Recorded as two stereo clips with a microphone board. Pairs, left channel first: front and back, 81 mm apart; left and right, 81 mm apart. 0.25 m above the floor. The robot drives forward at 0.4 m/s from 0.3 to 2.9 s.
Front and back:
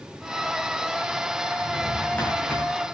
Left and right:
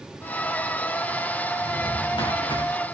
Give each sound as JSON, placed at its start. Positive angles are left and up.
{"t": 1.6, "sound": "a drawer", "azimuth_deg": 70, "distance_m": 8.5}